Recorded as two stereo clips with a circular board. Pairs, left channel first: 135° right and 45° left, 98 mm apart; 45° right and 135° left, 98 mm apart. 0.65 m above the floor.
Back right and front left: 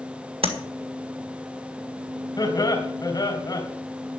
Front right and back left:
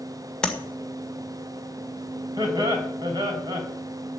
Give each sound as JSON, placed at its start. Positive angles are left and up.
{"t": 0.4, "sound": "tapping", "azimuth_deg": 35, "distance_m": 1.8}
{"t": 2.4, "sound": "laughter", "azimuth_deg": 175, "distance_m": 3.5}